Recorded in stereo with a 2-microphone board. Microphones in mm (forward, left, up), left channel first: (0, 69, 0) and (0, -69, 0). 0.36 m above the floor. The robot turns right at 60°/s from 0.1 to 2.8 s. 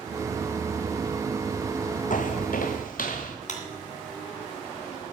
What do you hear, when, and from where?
2.1 s footsteps: 70° left (ahead or behind), 0.9 m; by 3.4 s 80° left, 2.5 m
3.5 s a clap: 65° left (ahead or behind), 2.5 m